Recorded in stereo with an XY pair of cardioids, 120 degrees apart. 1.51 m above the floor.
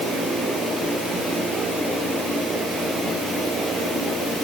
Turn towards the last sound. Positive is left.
No sound to turn to.